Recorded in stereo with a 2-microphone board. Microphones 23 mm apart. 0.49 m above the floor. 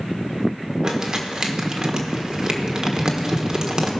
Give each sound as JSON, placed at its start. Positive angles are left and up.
{"t": 0.8, "sound": "crumpling", "side_deg": -35, "distance_m": 1.2}